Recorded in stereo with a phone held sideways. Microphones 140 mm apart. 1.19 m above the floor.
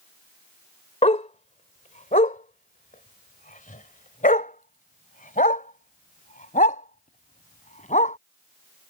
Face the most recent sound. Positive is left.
turn(degrees=65)  # may be behind; listen again after turning